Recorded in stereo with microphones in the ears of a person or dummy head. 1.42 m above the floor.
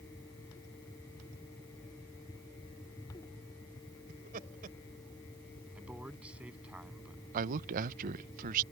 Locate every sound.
4.1 s laughter: 45° right (ahead or behind)
5.8 s a man speaking: 5° right (ahead or behind)
7.3 s a man speaking: 45° right (ahead or behind)